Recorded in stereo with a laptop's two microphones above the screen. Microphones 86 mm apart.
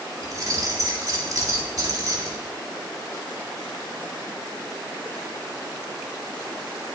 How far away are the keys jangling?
About 1.9 m.